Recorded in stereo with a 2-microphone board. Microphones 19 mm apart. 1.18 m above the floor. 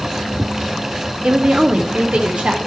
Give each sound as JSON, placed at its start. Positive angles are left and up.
{"t": 1.2, "sound": "a woman speaking", "side_deg": -55, "distance_m": 0.5}